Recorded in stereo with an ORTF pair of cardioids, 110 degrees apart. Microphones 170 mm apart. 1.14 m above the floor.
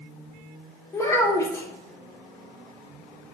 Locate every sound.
0.9 s a child speaking: 15° left, 1.0 m